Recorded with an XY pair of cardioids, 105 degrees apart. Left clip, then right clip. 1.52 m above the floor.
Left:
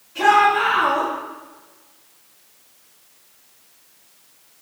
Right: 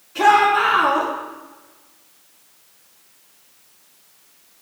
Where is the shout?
30° right, 3 m.